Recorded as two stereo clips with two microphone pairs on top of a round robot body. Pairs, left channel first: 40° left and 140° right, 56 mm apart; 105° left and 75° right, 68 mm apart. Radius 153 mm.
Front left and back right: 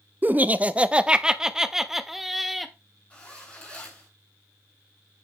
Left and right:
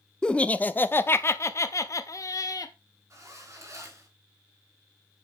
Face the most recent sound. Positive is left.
turn(degrees=-30)